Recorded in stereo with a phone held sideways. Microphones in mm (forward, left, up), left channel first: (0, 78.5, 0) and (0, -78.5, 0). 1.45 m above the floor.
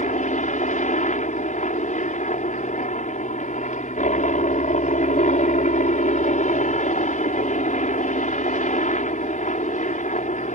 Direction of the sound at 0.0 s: 50° left (ahead or behind).